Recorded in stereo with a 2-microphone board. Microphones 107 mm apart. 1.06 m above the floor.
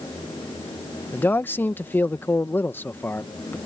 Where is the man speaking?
20° left (ahead or behind).